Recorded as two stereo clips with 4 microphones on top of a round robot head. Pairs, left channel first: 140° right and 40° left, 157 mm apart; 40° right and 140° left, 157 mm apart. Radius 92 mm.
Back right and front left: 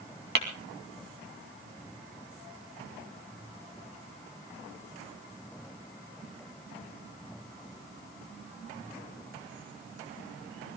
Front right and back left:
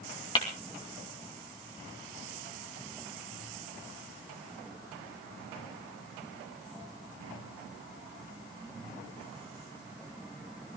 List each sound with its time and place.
0.3 s tapping: 20° left, 2.5 m